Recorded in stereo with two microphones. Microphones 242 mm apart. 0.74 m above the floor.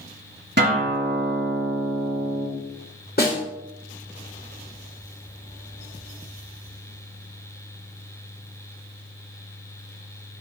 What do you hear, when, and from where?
0.6 s a guitar: 45° right (ahead or behind), 4.5 m
3.2 s a snare drum: 40° left (ahead or behind), 2.5 m